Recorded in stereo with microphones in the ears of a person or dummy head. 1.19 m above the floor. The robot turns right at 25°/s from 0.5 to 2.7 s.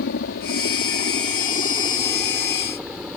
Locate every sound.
0.0 s a helicopter: 50° left (ahead or behind); by 3.2 s centre (ahead or behind)